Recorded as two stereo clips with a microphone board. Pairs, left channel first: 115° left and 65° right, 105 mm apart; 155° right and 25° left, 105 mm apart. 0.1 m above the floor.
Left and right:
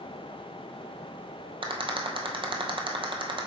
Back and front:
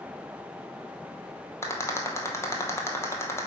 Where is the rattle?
95° right, 0.9 m.